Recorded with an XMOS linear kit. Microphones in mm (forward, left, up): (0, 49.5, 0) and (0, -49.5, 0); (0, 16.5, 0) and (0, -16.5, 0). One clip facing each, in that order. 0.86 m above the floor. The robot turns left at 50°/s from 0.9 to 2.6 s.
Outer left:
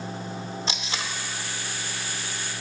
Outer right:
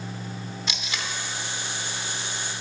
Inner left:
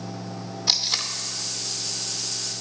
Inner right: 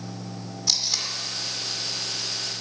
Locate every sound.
0.7 s tape being pulled: 30° left (ahead or behind), 0.7 m; by 1.1 s 25° left (ahead or behind), 0.7 m